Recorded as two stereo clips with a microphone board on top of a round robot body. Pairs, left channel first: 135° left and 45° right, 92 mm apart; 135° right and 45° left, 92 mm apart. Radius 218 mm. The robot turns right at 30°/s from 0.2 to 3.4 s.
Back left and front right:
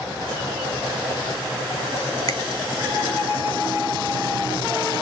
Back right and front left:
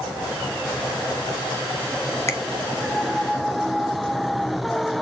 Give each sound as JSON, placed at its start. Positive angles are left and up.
{"t": 2.3, "sound": "a finger snap", "azimuth_deg": 175, "distance_m": 2.0}